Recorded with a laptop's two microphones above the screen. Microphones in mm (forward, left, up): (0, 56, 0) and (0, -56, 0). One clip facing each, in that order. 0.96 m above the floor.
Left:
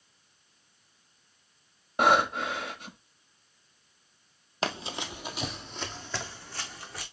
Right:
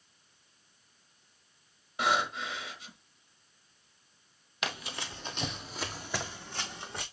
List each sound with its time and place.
2.0 s breathing: 55° left (ahead or behind), 1.1 m
4.6 s running footsteps: 35° left (ahead or behind), 1.2 m; by 7.0 s 25° right (ahead or behind), 2.5 m